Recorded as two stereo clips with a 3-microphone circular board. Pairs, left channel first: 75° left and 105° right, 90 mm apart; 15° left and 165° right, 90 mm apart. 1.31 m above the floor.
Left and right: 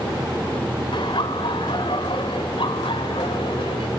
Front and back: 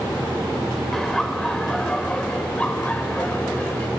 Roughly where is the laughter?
Left.